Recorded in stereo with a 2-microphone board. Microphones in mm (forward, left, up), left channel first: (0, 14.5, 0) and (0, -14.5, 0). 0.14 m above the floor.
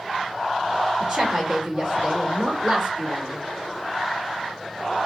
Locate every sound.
1.0 s a woman speaking: 35° right (ahead or behind), 2 m